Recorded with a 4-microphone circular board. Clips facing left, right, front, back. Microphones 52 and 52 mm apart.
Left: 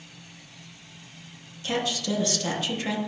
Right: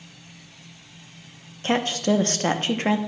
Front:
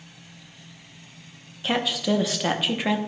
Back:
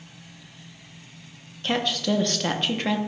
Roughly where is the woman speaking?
Right.